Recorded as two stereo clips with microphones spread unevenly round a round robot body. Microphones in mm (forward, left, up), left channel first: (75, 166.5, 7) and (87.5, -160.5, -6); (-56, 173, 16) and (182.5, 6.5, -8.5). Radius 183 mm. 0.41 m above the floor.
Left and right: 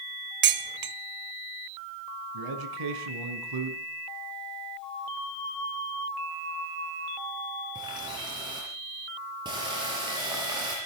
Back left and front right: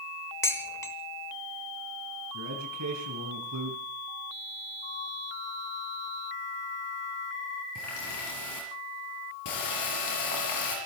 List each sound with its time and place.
0.4 s dishes clattering: 130° right, 0.9 m
2.3 s a man speaking: 80° right, 4.5 m
4.8 s a flute: 75° left, 4.5 m
7.8 s a running tap: 165° right, 5.5 m